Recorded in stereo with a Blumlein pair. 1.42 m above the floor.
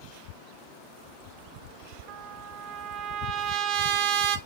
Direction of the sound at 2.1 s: 35° right.